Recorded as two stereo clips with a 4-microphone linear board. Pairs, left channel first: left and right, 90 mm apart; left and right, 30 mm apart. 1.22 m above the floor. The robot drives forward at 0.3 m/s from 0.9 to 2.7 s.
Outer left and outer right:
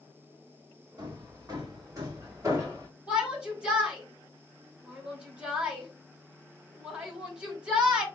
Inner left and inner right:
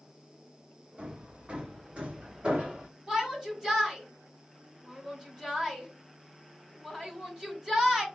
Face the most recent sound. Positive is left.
turn(degrees=-10)  # may be behind; listen again after turning